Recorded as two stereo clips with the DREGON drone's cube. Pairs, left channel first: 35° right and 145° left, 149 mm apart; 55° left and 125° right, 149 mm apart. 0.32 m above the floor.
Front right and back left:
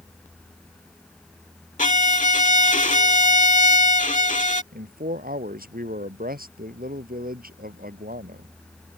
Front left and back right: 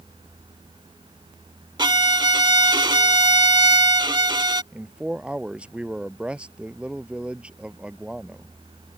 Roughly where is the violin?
Ahead right.